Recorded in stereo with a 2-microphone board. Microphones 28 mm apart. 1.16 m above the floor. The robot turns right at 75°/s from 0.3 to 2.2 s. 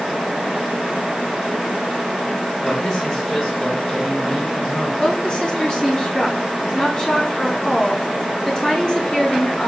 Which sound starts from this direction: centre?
A man speaking, at 2.6 s.